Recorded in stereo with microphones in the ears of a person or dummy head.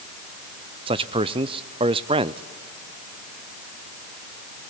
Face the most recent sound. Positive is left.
turn(degrees=-20)  # may be behind; listen again after turning